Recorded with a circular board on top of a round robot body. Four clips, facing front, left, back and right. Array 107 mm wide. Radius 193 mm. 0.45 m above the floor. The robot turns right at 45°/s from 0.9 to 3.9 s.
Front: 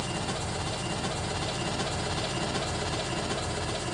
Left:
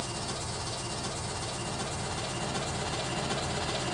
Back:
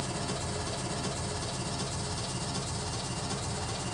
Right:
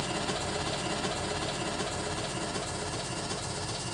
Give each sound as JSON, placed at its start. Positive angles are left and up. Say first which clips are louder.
{"t": 0.0, "sound": "an engine running", "louder": "right 4 dB, front 2 dB", "azimuth_deg": -60, "distance_m": 0.9}